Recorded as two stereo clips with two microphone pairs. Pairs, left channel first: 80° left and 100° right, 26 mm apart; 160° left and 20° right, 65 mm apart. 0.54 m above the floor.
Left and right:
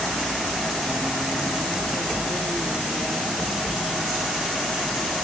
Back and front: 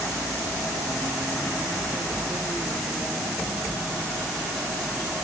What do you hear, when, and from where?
Only background noise.